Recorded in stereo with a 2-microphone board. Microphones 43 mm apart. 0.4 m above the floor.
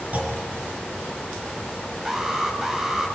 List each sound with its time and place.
0.1 s a clunk: 35° right (ahead or behind), 5 m
2.0 s an alarm: 10° right (ahead or behind), 1.7 m